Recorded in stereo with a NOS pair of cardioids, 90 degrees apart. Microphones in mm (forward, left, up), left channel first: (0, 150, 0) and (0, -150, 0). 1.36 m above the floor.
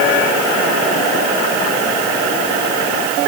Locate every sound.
Only background noise.